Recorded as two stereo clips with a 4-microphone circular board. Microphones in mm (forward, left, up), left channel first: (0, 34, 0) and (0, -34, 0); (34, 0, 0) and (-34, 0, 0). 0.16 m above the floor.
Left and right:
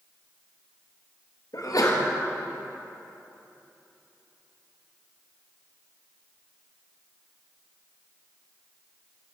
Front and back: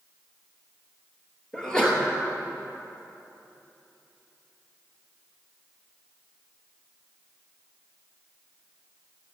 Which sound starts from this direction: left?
A sneeze, at 1.5 s.